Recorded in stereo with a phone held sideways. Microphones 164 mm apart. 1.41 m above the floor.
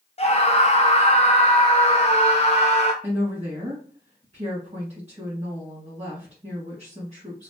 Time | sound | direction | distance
0.2 | a scream | 40° left (ahead or behind) | 0.5 m
3.0 | a woman speaking | 40° right (ahead or behind) | 1.8 m